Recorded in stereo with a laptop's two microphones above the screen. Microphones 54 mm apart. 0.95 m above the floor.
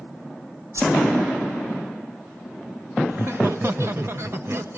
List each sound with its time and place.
0.7 s a whoosh: 80° right, 4.5 m
3.1 s laughter: 55° right (ahead or behind), 0.8 m